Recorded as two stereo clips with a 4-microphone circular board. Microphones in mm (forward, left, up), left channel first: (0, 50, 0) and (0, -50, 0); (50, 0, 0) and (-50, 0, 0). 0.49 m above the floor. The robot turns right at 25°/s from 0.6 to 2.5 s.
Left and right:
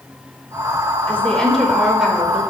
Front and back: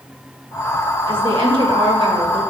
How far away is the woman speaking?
About 1.3 m.